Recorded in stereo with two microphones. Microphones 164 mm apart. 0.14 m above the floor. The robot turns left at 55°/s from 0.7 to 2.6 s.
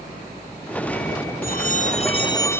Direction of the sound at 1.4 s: 80° left.